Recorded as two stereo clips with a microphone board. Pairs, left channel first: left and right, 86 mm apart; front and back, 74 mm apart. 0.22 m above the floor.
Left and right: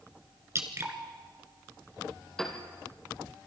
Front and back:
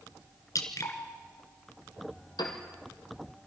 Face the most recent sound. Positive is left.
turn(degrees=5)